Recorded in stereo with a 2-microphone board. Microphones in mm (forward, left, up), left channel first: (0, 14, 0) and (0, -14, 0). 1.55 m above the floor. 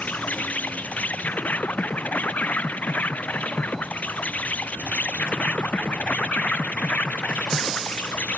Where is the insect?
75° left (ahead or behind).